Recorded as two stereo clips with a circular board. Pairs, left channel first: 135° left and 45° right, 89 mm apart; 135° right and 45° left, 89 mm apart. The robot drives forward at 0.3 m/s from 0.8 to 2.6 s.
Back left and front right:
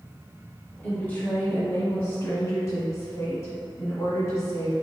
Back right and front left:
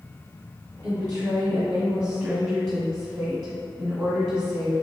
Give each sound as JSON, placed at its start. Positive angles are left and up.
{"t": 0.8, "sound": "a woman speaking", "azimuth_deg": 90, "distance_m": 1.3}